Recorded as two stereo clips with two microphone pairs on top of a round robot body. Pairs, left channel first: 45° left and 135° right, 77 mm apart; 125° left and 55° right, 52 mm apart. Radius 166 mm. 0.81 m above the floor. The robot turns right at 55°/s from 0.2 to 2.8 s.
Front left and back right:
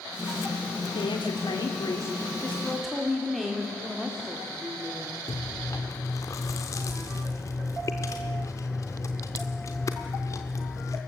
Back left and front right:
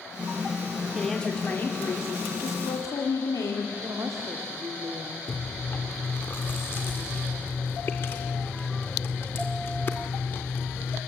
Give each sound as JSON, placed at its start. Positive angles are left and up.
{"t": 0.9, "sound": "a woman speaking", "azimuth_deg": 30, "distance_m": 2.0}
{"t": 3.8, "sound": "a woman speaking", "azimuth_deg": -60, "distance_m": 2.0}
{"t": 5.3, "sound": "chewing", "azimuth_deg": 95, "distance_m": 0.6}